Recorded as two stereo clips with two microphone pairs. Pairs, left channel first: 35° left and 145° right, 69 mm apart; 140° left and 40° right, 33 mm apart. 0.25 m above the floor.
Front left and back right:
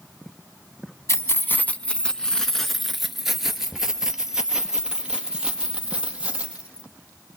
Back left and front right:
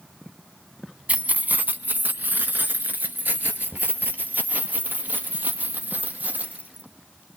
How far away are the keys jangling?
About 1.1 m.